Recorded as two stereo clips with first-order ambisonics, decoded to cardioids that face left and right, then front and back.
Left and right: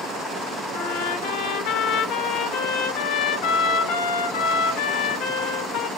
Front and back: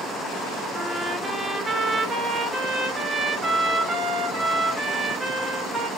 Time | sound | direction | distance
0.7 | a trumpet | 105° left | 0.7 m